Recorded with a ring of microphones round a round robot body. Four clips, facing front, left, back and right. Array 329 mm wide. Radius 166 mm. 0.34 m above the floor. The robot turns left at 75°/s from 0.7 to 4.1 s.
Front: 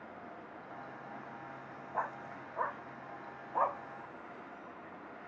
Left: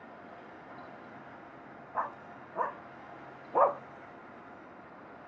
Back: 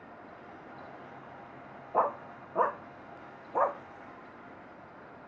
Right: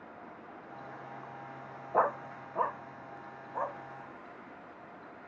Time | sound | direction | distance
1.9 | a dog barking | 125° right | ?